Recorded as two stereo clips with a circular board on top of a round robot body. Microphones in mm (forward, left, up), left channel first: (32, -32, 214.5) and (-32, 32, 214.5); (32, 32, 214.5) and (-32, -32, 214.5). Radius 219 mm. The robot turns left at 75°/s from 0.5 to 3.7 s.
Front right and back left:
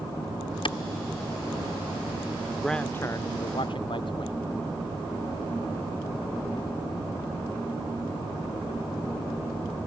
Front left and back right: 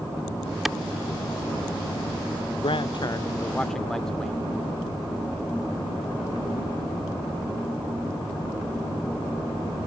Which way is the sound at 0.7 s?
45° right.